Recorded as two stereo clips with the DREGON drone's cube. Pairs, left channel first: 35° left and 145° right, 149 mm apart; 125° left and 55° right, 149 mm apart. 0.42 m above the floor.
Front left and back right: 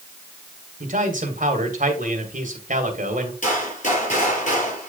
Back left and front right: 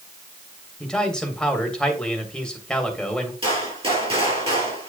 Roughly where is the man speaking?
Behind right.